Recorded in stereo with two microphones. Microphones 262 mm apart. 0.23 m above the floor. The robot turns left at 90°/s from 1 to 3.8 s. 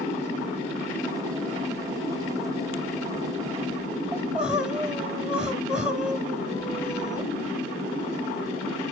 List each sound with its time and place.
4.1 s crying: 5° right (ahead or behind), 1.3 m